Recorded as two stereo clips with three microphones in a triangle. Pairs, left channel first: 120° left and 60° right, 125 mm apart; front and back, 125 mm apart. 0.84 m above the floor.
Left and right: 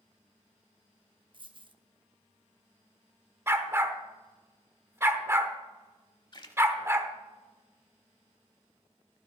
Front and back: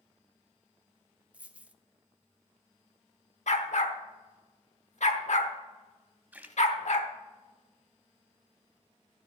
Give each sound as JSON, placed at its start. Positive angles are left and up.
{"t": 1.3, "sound": "a dropped coin", "azimuth_deg": -100, "distance_m": 0.5}
{"t": 3.5, "sound": "a dog barking", "azimuth_deg": 10, "distance_m": 1.0}
{"t": 6.3, "sound": "a splash", "azimuth_deg": 115, "distance_m": 0.8}